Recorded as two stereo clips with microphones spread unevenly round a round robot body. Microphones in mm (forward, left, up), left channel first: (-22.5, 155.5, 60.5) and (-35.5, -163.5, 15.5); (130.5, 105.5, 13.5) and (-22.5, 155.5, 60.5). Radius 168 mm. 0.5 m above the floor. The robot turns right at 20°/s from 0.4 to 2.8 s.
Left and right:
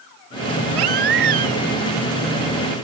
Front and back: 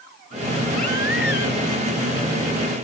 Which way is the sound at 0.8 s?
75° right.